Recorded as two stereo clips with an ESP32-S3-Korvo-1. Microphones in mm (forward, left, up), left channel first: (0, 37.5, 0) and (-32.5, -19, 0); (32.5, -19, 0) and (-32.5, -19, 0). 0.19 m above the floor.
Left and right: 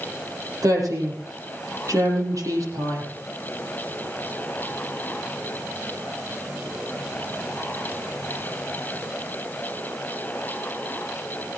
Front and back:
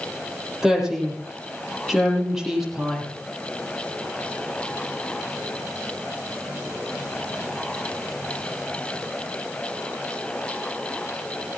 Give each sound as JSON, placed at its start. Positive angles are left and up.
{"t": 0.6, "sound": "a woman speaking", "azimuth_deg": -100, "distance_m": 5.5}